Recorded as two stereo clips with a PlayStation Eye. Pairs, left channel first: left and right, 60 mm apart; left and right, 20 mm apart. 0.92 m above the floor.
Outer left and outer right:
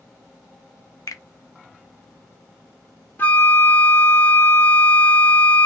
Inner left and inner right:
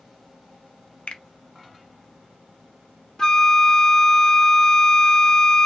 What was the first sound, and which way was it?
A finger snap, 70° left (ahead or behind).